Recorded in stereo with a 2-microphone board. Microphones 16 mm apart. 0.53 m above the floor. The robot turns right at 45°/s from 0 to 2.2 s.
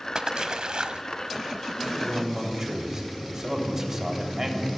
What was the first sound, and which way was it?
A splash, 135° right.